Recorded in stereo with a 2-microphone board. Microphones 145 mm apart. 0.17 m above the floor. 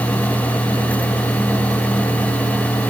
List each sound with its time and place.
Only background noise.